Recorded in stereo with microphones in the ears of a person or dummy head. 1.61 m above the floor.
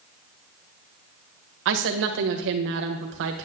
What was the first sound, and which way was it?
A woman speaking, 70° right (ahead or behind).